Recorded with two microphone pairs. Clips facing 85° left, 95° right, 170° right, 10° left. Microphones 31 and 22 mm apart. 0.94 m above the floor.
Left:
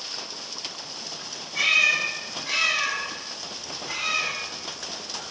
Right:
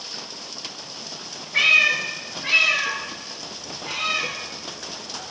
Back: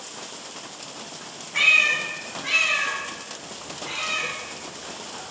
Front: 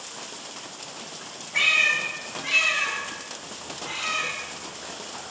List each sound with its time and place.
1.5 s a cat meowing: 65° right, 4 m; by 5.3 s 85° right, 7 m